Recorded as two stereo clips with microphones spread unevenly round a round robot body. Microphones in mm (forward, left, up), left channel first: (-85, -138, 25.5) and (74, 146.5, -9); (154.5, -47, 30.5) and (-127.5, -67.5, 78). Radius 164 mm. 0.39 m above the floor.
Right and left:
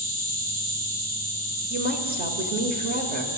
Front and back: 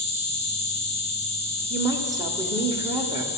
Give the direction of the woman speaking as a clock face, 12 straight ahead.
9 o'clock.